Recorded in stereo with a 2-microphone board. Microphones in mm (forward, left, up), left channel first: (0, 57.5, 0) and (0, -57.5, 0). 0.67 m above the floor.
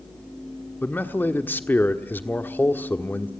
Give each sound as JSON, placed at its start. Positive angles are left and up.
{"t": 0.8, "sound": "a man speaking", "side_deg": 20, "distance_m": 1.3}